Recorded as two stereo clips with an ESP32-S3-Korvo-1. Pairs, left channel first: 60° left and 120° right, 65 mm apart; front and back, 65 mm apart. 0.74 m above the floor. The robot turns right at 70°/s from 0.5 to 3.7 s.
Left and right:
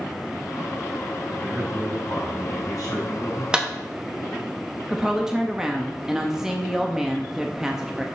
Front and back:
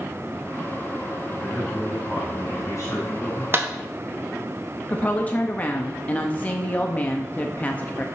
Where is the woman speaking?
45° right, 0.5 m.